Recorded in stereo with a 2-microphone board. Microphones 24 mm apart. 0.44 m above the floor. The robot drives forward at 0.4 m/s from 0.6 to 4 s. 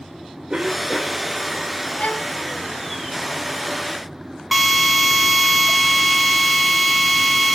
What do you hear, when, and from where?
0.5 s a cough: 45° right (ahead or behind), 1.3 m; by 1.3 s 40° right (ahead or behind), 1.4 m
2.0 s a violin: 75° left (ahead or behind), 1.9 m; by 2.3 s 70° left (ahead or behind), 1.9 m
4.5 s a drill: 5° right (ahead or behind), 3 m